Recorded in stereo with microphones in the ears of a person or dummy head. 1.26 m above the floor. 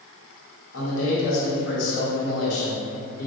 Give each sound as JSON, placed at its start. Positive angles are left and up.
{"t": 0.7, "sound": "a man speaking", "side_deg": 75, "distance_m": 1.9}